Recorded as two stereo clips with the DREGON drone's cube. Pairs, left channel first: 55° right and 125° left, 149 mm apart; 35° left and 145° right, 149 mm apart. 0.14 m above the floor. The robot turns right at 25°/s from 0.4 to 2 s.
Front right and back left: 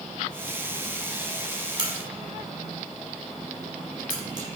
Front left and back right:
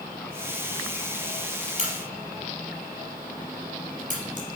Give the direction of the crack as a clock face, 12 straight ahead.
6 o'clock.